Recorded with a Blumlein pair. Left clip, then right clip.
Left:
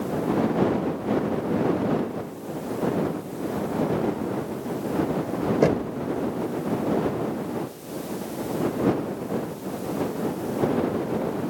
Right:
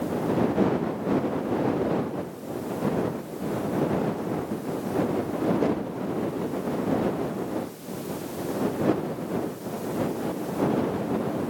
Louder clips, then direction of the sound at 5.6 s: Left 5 dB; 30° left.